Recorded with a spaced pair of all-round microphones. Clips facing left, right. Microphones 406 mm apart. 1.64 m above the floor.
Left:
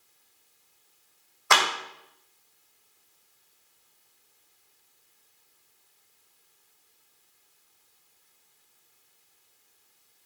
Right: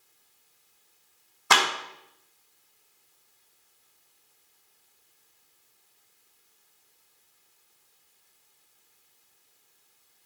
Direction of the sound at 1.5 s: 50° right (ahead or behind).